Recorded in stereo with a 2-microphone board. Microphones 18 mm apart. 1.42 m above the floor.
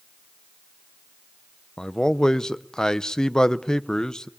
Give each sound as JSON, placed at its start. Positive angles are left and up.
{"t": 1.8, "sound": "a man speaking", "side_deg": 40, "distance_m": 0.8}